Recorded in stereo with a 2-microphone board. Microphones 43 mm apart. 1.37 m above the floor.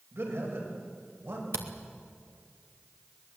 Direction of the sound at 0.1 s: 70° right (ahead or behind).